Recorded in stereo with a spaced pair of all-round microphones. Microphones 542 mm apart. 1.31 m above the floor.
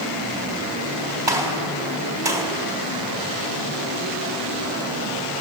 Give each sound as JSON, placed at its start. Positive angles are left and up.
{"t": 1.3, "sound": "a gunshot", "side_deg": -50, "distance_m": 4.0}